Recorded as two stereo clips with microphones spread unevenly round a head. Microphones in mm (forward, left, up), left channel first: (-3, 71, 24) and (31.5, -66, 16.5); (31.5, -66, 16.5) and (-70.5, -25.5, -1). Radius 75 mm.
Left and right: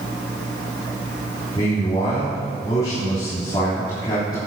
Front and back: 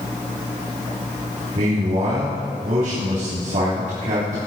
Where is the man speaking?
165° left, 3 m.